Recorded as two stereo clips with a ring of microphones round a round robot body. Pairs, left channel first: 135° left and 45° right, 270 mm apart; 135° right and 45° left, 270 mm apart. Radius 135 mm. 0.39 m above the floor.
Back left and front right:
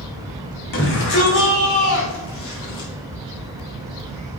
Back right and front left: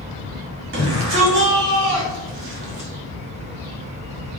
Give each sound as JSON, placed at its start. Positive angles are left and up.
{"t": 0.7, "sound": "a shout", "azimuth_deg": 85, "distance_m": 3.0}